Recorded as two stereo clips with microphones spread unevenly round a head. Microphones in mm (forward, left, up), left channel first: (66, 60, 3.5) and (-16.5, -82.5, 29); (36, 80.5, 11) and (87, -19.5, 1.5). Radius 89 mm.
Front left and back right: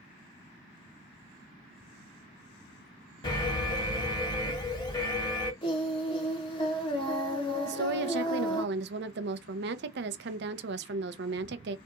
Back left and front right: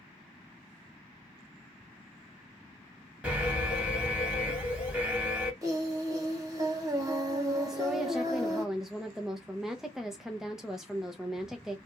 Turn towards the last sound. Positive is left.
turn(degrees=-150)